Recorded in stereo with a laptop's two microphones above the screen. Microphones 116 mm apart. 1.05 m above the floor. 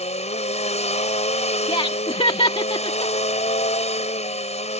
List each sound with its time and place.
0.0 s a machine running: 70° left (ahead or behind)
1.7 s laughter: 50° left (ahead or behind)